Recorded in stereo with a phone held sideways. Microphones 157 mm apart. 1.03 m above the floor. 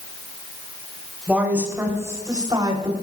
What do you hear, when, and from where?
1.3 s a woman speaking: 10° right (ahead or behind), 3.5 m; by 2.9 s 35° right (ahead or behind), 3 m